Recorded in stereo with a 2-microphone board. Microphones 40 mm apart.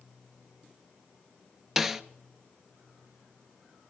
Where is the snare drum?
5° right (ahead or behind), 0.6 m.